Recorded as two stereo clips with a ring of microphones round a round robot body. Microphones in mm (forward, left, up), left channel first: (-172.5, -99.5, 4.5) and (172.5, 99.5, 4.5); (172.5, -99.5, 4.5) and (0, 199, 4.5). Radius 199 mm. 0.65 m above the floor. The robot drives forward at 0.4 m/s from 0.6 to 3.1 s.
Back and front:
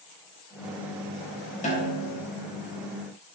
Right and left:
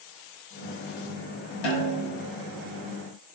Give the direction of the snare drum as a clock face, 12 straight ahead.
3 o'clock.